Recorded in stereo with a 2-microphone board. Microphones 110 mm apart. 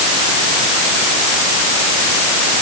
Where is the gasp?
No gasp in this recording.